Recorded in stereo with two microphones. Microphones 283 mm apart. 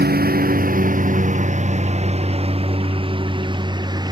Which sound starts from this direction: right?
A lawn mower, at 0.0 s.